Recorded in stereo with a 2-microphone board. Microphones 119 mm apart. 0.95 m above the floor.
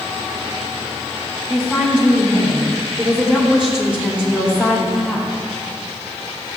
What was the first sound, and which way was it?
A woman speaking, 10° right (ahead or behind).